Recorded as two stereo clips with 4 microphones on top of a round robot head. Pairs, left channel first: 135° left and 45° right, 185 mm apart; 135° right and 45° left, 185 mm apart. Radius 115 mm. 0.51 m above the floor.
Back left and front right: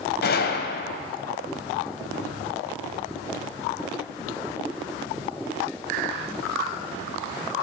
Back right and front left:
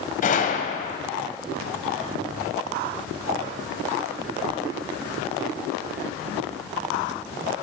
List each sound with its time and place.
0.2 s a gunshot: 175° left, 1.1 m